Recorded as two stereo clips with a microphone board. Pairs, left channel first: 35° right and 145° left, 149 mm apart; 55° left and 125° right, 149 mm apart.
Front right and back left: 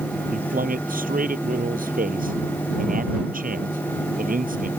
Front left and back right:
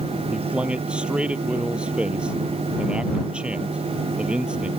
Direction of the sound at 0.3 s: 155° left.